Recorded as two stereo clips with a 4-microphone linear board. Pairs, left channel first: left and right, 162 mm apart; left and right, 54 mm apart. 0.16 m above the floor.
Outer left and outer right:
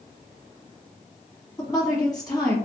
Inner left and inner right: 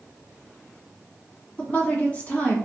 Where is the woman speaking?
25° left (ahead or behind), 1.4 m.